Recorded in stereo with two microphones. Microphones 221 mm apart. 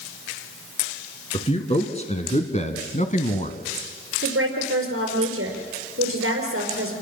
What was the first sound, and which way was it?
A man speaking, 30° left (ahead or behind).